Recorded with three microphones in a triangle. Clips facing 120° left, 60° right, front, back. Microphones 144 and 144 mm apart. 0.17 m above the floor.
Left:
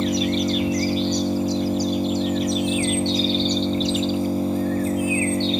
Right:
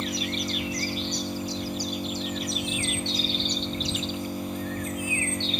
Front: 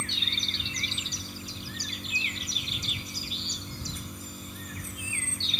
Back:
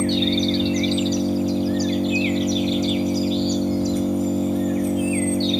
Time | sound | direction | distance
0.0 | an engine running | 175° left | ?